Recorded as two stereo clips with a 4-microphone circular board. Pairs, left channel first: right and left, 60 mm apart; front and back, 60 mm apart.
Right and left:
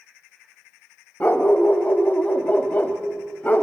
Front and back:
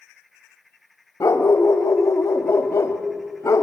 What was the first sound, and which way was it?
A dog barking, 30° right.